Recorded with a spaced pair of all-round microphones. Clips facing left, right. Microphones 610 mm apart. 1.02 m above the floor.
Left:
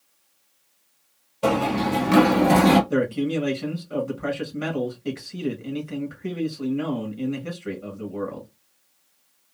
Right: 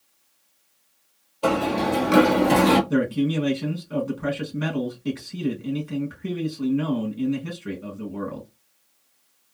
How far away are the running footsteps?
About 1.4 m.